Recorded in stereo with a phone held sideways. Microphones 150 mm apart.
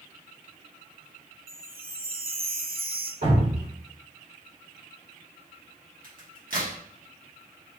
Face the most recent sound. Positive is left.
turn(degrees=-70)  # may be behind; listen again after turning